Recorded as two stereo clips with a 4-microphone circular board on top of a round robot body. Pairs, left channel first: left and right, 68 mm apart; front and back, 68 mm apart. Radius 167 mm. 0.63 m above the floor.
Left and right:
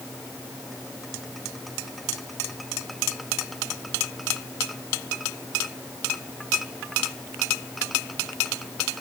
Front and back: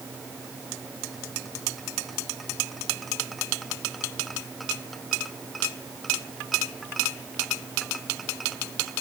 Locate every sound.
Only background noise.